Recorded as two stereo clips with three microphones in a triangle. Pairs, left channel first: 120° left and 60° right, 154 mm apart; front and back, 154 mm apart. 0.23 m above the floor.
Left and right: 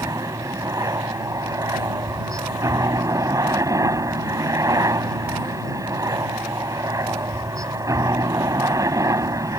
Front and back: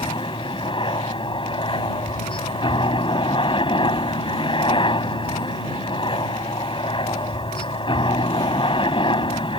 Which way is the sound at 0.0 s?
10° right.